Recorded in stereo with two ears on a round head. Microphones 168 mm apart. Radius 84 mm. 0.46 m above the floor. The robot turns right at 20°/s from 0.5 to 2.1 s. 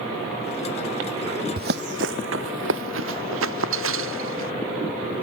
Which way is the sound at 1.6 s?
50° right (ahead or behind).